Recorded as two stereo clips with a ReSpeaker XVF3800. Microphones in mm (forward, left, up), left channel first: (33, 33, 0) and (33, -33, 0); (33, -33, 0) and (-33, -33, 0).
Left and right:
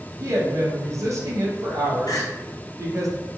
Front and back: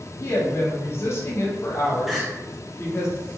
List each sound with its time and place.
0.2 s a woman speaking: 50° right, 0.8 m
2.1 s crying: 95° left, 0.5 m